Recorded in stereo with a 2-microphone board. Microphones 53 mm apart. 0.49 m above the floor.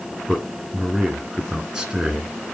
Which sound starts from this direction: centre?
A man speaking, at 0.3 s.